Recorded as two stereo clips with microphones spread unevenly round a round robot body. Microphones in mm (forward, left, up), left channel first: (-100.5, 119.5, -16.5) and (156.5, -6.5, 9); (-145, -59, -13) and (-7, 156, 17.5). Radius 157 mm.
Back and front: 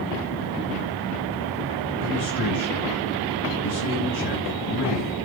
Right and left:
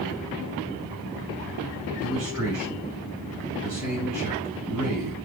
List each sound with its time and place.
2.0 s a man speaking: 145° left, 6 m